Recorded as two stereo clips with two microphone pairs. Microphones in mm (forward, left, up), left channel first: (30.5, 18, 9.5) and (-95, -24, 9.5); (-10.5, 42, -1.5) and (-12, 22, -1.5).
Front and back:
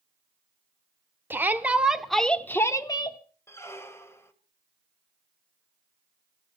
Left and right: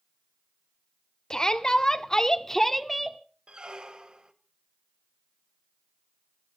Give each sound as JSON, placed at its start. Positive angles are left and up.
{"t": 1.3, "sound": "a shout", "azimuth_deg": 130, "distance_m": 1.3}
{"t": 3.5, "sound": "a squeak", "azimuth_deg": -55, "distance_m": 1.3}